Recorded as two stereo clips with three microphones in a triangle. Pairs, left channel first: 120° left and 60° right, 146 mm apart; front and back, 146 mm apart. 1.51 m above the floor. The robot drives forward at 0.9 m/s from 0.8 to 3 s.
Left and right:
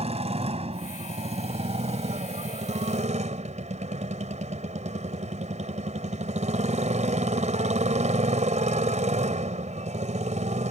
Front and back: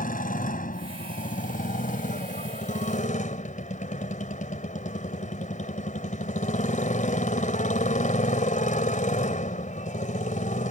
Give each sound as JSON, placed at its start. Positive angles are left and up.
{"t": 0.0, "sound": "a motorcycle", "azimuth_deg": -15}